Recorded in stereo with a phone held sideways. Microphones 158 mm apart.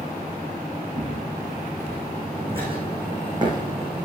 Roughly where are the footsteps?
Right.